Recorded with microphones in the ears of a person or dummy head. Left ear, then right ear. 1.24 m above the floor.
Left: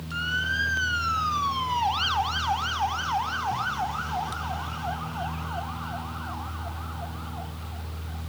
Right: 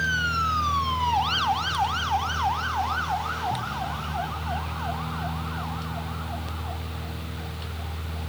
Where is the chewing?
I don't hear chewing.